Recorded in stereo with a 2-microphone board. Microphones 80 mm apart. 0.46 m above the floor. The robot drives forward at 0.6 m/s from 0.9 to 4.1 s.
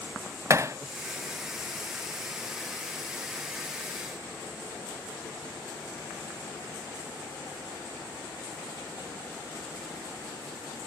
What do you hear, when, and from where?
0.5 s hammering: 35° right (ahead or behind), 0.6 m